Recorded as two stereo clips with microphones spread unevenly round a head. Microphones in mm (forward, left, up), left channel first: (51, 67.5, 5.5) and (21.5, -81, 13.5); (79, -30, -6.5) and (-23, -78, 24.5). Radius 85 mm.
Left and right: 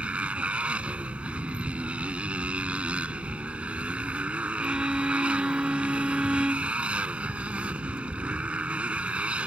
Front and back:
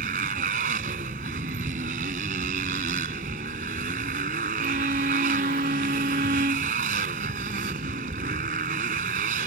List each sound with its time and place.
0.0 s a motorcycle: 175° left
4.6 s a violin: 175° left